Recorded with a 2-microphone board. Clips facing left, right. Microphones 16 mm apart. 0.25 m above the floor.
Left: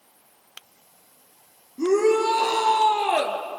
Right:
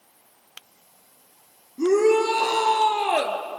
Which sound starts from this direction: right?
A shout, at 1.8 s.